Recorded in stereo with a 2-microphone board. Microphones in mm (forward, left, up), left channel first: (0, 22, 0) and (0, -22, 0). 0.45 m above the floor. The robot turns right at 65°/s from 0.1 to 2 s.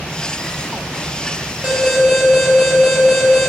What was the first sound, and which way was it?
An alarm, 25° right (ahead or behind).